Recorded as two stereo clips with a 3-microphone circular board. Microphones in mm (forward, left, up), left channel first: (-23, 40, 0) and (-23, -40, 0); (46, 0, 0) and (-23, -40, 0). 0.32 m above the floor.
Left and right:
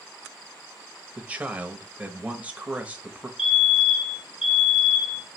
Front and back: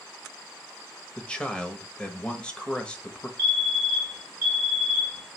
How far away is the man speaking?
About 1.1 m.